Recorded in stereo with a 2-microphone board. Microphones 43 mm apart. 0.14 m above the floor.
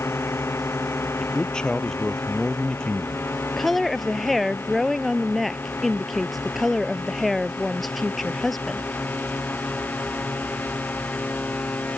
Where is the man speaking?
15° left (ahead or behind).